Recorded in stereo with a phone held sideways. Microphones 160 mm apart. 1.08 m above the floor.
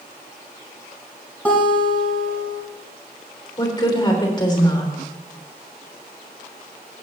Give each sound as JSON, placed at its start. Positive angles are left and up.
{"t": 1.4, "sound": "a guitar", "side_deg": 10, "distance_m": 3.5}
{"t": 3.6, "sound": "a woman speaking", "side_deg": 25, "distance_m": 3.0}